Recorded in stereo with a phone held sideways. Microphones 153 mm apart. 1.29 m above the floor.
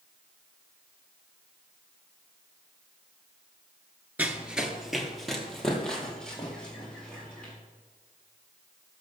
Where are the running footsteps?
10° right (ahead or behind), 1.3 m; by 7.5 s 5° left (ahead or behind), 5.5 m.